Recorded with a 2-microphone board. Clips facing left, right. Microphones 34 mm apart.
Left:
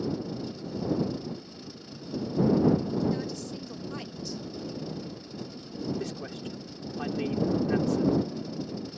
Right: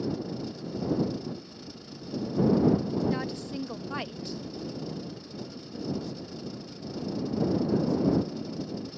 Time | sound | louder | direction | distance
3.1 | a woman speaking | even | 35° right (ahead or behind) | ?
6.0 | a man speaking | left 2 dB | 80° left | ?